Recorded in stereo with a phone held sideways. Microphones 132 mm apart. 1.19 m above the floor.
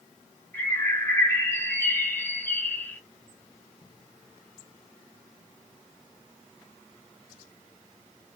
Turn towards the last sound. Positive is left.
turn(degrees=15)  # may be behind; listen again after turning